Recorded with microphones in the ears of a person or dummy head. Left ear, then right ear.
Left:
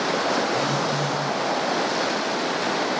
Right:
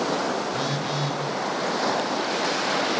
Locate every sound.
0.5 s a phone buzzing: 15° right (ahead or behind), 6 m